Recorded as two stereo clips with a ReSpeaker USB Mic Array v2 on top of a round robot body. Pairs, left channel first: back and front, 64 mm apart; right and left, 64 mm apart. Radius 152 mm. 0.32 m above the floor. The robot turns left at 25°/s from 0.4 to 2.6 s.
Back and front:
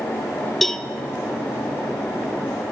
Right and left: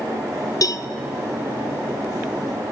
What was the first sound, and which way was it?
A cowbell, 95° right.